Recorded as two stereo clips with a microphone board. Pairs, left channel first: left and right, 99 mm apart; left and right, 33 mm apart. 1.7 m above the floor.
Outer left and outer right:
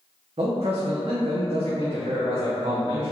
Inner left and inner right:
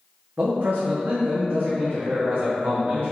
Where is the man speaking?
70° right (ahead or behind), 0.5 m.